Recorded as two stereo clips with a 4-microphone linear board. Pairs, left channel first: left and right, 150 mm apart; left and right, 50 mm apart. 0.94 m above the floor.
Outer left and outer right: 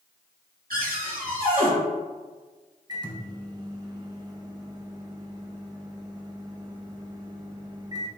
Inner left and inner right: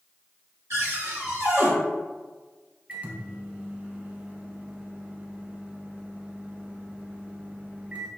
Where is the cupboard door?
70° right (ahead or behind), 1.4 m.